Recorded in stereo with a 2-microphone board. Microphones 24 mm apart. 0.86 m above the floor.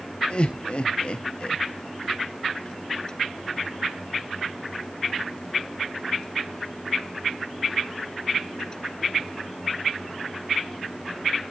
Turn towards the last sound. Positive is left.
turn(degrees=50)  # may be behind; listen again after turning